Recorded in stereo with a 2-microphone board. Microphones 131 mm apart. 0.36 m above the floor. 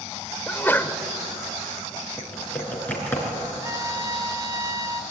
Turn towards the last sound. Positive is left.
turn(degrees=-25)  # may be behind; listen again after turning